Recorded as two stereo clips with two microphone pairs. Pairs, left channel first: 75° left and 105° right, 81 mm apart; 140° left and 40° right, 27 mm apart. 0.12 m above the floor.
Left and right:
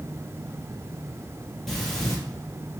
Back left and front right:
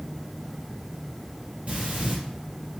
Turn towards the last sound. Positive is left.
turn(degrees=-10)